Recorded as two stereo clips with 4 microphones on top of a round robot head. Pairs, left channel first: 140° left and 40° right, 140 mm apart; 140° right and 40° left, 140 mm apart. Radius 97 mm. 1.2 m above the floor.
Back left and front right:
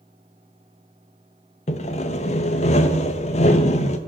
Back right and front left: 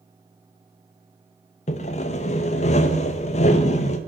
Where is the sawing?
Straight behind, 0.6 m.